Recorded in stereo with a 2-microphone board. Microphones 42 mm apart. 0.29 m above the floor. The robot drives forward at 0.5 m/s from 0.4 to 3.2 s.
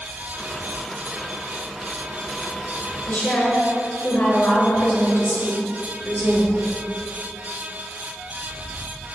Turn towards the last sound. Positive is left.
turn(degrees=55)  # may be behind; listen again after turning